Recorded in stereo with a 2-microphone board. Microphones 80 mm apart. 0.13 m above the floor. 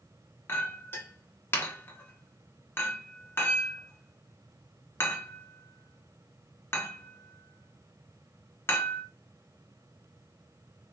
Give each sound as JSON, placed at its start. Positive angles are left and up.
{"t": 0.5, "sound": "a clink", "side_deg": 30, "distance_m": 1.0}